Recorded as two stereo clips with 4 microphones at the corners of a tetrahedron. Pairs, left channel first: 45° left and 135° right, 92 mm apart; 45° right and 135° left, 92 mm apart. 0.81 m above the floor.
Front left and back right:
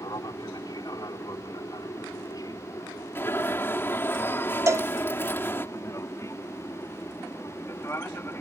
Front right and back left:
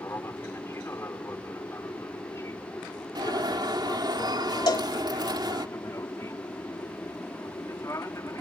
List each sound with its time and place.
0.0 s an aircraft: 10° left; by 8.4 s 5° right
3.1 s an alarm: 105° left
4.7 s a cowbell: 80° right